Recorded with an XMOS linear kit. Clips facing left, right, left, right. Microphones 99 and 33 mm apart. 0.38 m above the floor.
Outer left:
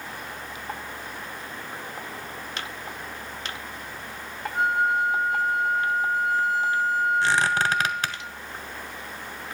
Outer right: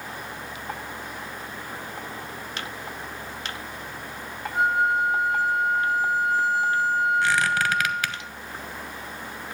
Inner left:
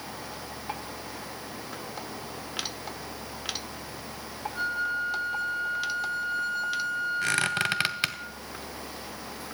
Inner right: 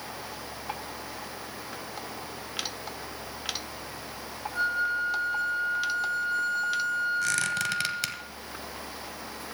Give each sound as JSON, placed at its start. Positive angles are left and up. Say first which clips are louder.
{"t": 4.5, "sound": "a flute", "louder": "outer right 1 dB, inner right 2 dB", "side_deg": 0, "distance_m": 2.0}
{"t": 7.2, "sound": "a squeak", "louder": "even, inner left 1 dB", "side_deg": 30, "distance_m": 0.7}